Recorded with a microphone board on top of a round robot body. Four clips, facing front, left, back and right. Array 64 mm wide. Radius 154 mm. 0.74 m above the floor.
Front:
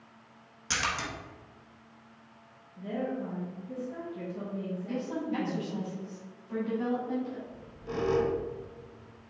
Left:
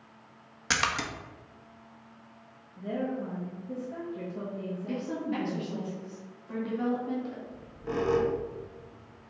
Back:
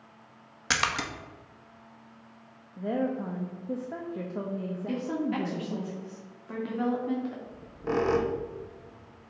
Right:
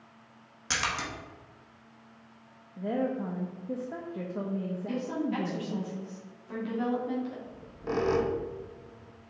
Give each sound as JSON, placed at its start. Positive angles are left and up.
{"t": 0.7, "sound": "a splash", "azimuth_deg": 150, "distance_m": 1.1}
{"t": 2.8, "sound": "a woman speaking", "azimuth_deg": -145, "distance_m": 0.9}
{"t": 4.9, "sound": "a woman speaking", "azimuth_deg": 170, "distance_m": 1.9}
{"t": 7.5, "sound": "a squeak", "azimuth_deg": -165, "distance_m": 0.9}